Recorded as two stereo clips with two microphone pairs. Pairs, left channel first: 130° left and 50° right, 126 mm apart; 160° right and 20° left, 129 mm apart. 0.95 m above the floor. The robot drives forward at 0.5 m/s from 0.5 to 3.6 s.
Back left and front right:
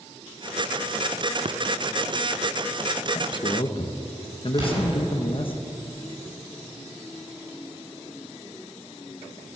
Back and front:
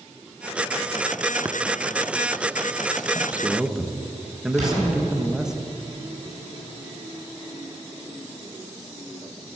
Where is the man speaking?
90° left, 1.0 m; by 5.5 s 105° left, 1.1 m.